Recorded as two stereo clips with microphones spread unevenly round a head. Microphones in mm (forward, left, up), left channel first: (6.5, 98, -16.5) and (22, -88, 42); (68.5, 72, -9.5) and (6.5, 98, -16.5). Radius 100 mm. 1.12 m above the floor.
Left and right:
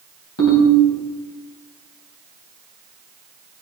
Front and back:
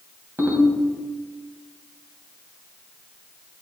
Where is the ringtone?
100° left, 3.5 m.